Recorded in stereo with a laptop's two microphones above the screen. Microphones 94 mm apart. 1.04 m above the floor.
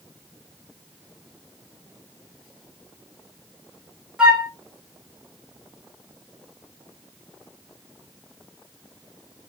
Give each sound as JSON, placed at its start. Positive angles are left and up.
{"t": 4.2, "sound": "a flute", "side_deg": -10, "distance_m": 0.7}